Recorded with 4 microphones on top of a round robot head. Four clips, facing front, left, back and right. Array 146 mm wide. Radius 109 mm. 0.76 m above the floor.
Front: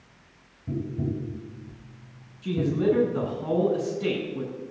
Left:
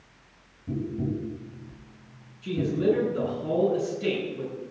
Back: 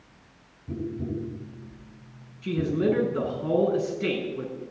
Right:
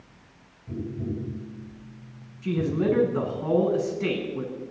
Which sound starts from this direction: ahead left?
Tapping, at 0.7 s.